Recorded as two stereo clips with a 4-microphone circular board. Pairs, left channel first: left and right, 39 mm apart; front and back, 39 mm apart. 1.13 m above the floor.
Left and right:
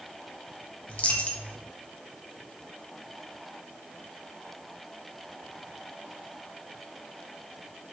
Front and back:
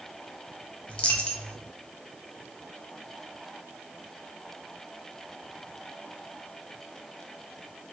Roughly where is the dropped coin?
Ahead left.